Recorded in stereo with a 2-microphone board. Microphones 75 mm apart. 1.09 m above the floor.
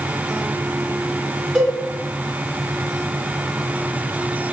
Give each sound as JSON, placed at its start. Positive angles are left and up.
{"t": 1.6, "sound": "a cowbell", "side_deg": -5, "distance_m": 1.6}